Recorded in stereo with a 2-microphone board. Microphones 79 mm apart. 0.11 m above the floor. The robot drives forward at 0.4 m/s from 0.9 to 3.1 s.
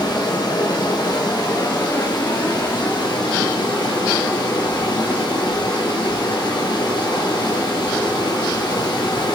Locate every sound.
0.0 s running water: 65° left (ahead or behind), 2.5 m